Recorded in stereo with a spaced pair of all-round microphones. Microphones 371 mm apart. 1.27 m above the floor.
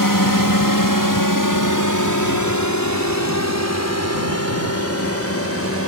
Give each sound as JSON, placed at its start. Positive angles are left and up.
{"t": 0.0, "sound": "a drone", "side_deg": 60}